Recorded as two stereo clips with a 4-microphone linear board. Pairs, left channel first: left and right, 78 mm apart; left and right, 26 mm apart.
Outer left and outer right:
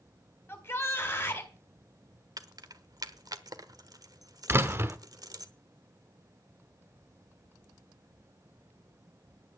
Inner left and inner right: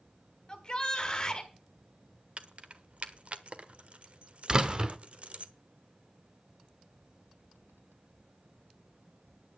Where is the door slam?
30° right (ahead or behind), 1.0 m.